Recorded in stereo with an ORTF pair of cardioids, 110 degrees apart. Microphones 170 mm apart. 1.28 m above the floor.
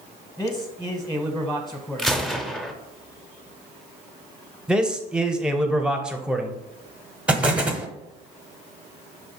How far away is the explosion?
About 0.6 m.